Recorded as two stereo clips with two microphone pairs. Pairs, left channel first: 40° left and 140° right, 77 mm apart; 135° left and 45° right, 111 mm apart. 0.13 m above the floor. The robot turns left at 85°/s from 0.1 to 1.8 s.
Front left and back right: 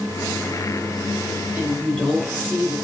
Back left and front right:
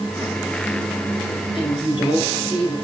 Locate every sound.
1.5 s a woman speaking: 135° left, 2.5 m; by 2.8 s 115° left, 2.5 m